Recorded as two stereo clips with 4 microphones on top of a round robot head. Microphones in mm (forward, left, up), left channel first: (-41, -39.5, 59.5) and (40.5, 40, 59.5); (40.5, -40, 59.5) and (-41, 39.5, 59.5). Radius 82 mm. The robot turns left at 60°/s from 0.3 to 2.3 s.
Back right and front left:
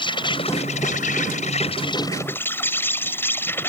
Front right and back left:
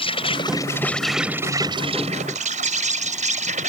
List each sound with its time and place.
0.0 s an insect: 85° right; by 3.7 s 155° left